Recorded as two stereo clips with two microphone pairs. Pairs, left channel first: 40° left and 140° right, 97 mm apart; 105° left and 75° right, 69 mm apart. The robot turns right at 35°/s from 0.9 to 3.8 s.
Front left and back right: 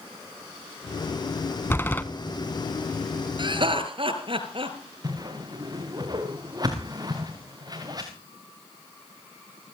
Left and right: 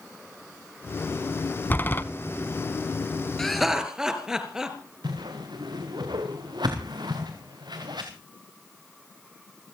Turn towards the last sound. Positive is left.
turn(degrees=-90)